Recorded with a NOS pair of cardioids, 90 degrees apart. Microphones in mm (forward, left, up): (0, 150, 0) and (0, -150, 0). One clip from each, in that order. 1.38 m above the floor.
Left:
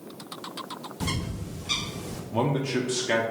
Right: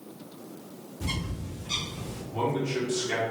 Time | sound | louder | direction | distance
1.0 | a bird | left 1 dB | 65° left | 1.1 m
2.3 | a man speaking | left 2 dB | 50° left | 0.7 m